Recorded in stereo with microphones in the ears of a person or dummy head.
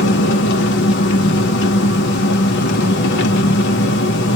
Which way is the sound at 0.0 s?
65° left (ahead or behind).